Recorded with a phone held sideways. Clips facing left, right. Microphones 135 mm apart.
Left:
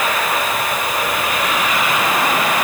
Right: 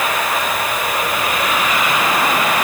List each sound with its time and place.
Only background noise.